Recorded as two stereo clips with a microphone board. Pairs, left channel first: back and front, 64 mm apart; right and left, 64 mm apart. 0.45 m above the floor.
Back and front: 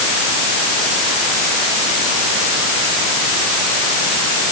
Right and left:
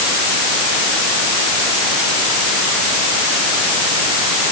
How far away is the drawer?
No drawer in this recording.